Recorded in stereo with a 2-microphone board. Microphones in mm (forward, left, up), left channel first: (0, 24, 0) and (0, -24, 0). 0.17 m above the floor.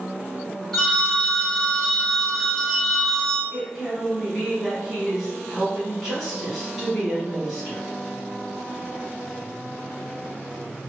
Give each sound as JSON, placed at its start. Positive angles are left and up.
{"t": 0.7, "sound": "a phone ringing", "side_deg": 10, "distance_m": 0.9}
{"t": 3.5, "sound": "a woman speaking", "side_deg": 0, "distance_m": 1.3}